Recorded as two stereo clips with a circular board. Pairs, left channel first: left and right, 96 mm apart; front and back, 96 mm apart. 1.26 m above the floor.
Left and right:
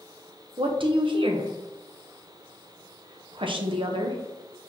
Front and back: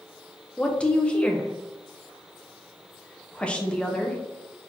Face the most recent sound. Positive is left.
turn(degrees=-80)